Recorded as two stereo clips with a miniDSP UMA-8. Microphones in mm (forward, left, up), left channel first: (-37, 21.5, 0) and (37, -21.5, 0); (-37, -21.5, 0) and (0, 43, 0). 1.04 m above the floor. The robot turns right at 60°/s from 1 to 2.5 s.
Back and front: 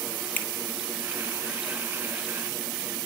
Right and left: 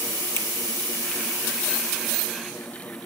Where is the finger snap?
80° left, 1.6 m.